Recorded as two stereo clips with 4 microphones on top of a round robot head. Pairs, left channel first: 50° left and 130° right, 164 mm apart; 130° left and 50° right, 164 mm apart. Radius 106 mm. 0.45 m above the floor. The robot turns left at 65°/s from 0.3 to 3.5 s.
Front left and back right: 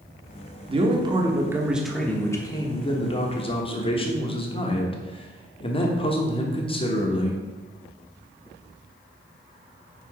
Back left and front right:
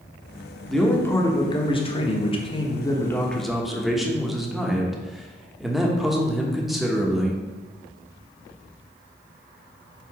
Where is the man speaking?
140° right, 1.1 m; by 7.4 s 35° left, 1.1 m.